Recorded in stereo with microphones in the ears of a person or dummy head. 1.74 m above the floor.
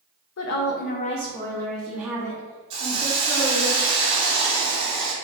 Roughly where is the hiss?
Right.